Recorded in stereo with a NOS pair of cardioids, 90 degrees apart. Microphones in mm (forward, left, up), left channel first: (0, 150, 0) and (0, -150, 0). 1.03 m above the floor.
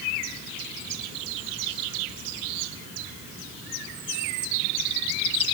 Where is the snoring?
I don't hear snoring.